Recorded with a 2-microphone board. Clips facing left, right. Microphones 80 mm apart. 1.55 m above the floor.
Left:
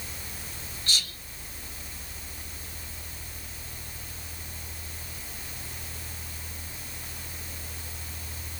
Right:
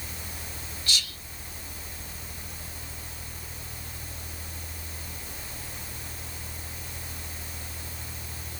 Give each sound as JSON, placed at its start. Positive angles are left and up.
{"t": 0.9, "sound": "whispering", "side_deg": 40, "distance_m": 1.5}